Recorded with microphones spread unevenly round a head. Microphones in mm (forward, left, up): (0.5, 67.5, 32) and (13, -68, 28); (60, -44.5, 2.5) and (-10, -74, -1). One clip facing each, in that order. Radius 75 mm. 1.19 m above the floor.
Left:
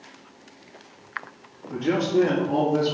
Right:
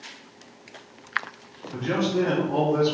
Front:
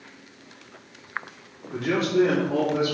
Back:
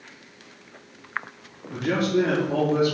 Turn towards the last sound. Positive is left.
turn(degrees=160)